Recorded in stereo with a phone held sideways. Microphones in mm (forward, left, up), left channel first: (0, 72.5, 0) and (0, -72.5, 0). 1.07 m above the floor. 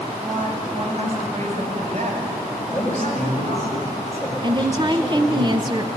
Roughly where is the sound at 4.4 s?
Right.